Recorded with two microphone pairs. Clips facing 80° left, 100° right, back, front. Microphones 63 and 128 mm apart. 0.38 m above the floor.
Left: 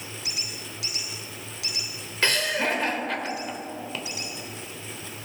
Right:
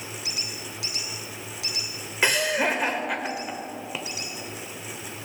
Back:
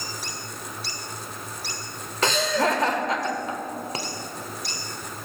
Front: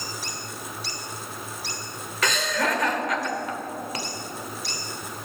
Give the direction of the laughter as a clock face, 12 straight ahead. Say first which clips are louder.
Right 2 dB, back 3 dB; 5 o'clock.